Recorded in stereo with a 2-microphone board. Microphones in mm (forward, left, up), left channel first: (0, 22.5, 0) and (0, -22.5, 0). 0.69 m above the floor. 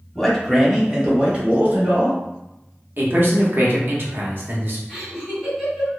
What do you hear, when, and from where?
0.1 s a man speaking: 5° left (ahead or behind), 1.1 m; by 2.2 s 45° right (ahead or behind), 1.8 m
3.0 s a man speaking: 50° right (ahead or behind), 1.0 m
4.9 s laughter: 5° left (ahead or behind), 1.8 m